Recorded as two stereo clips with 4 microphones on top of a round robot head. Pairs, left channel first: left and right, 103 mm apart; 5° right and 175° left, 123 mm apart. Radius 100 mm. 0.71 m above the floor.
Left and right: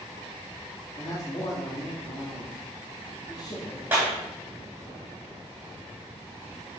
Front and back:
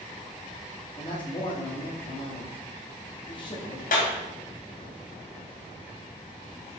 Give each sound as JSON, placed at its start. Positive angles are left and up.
{"t": 1.0, "sound": "a man speaking", "azimuth_deg": 40, "distance_m": 1.8}
{"t": 3.9, "sound": "a clap", "azimuth_deg": -15, "distance_m": 2.5}